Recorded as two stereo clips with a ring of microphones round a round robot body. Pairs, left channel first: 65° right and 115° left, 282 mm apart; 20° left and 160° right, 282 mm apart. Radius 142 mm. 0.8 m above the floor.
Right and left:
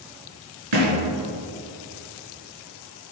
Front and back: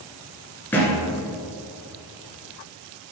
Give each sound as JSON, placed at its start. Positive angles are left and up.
{"t": 0.7, "sound": "a thud", "azimuth_deg": 105, "distance_m": 2.0}